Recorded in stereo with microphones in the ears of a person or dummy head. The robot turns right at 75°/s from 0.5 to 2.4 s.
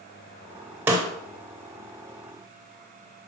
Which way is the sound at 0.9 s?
10° right (ahead or behind).